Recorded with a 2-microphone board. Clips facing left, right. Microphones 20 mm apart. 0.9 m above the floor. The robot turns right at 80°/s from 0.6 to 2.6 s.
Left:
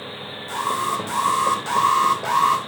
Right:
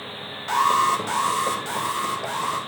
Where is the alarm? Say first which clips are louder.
Right 5 dB; 55° right, 3 m; by 2.6 s 105° left, 3 m.